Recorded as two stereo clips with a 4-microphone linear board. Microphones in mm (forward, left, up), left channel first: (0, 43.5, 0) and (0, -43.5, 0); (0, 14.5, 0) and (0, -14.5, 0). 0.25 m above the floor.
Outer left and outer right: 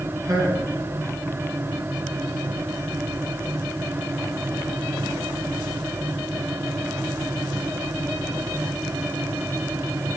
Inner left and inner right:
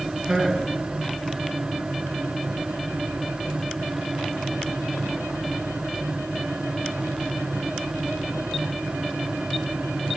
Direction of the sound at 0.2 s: 50° right (ahead or behind).